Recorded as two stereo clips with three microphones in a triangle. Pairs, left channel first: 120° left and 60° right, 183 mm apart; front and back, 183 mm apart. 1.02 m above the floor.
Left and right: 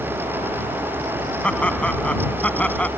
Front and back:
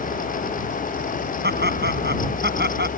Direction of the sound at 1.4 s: 155° right.